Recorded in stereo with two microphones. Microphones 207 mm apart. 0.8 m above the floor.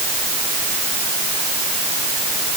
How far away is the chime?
No chime in this recording.